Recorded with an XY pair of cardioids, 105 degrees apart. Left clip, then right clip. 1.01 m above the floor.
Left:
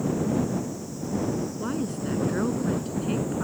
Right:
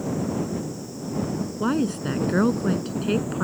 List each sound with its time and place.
1.6 s a woman speaking: 50° right